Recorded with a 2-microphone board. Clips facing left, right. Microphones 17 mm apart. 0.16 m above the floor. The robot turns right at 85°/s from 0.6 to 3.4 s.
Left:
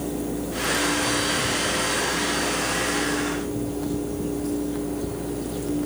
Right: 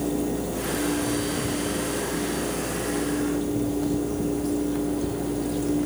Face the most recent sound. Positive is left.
No sound to turn to.